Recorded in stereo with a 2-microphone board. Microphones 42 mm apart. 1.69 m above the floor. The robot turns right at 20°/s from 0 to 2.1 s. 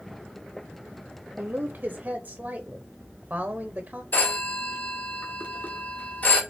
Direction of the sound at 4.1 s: 45° left (ahead or behind).